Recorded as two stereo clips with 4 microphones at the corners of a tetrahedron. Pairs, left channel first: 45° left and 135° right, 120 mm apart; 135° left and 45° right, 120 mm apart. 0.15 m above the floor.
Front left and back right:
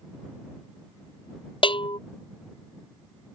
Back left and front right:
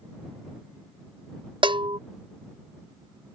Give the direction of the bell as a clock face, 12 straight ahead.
12 o'clock.